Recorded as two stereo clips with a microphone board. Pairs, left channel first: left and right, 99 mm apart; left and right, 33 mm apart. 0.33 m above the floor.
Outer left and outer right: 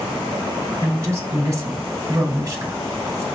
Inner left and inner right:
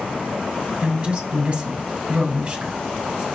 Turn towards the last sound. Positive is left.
turn(degrees=-30)  # may be behind; listen again after turning